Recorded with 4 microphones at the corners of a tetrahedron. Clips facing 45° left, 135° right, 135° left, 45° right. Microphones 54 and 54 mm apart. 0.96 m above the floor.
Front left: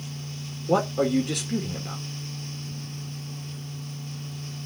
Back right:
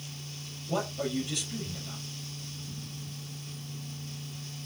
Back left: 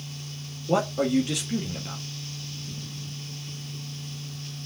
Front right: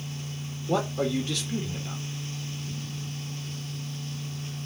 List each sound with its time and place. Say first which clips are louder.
0.7 s a man speaking: front left 9 dB, back left 3 dB; 65° left, 1.4 m